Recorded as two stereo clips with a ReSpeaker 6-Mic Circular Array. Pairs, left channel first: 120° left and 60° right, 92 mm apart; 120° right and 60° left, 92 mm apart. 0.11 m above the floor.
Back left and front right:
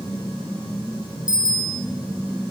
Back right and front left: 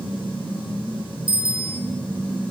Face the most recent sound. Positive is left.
turn(degrees=75)